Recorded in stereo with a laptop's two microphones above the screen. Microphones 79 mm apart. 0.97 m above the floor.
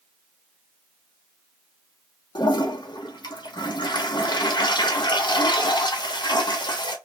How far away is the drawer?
No drawer in this recording.